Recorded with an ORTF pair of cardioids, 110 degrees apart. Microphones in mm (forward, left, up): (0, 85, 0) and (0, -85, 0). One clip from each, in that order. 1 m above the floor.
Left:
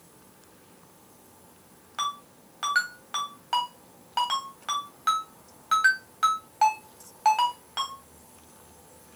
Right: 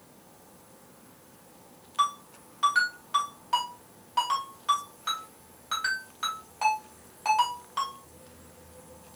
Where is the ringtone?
25° left, 2.5 m.